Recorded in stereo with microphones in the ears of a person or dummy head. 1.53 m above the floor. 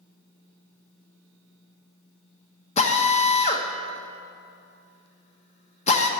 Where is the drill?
45° left (ahead or behind), 1.1 m.